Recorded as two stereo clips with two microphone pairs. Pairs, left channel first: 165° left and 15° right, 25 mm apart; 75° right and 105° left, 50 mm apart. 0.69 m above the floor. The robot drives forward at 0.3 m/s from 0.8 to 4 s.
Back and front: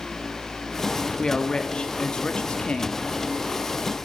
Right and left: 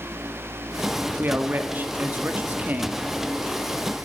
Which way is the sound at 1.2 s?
125° left.